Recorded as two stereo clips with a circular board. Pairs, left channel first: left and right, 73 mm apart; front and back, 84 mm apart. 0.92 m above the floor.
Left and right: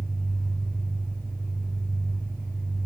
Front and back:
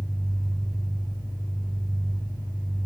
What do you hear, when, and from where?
0.0 s an engine running: 135° left, 8 m